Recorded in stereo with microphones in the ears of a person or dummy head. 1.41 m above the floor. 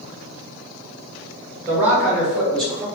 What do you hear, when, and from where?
1.7 s a man speaking: 15° right (ahead or behind), 1.9 m; by 2.9 s 5° left (ahead or behind), 1.8 m